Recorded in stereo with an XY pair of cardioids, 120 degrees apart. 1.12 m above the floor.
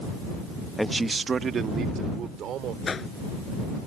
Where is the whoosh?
30° left.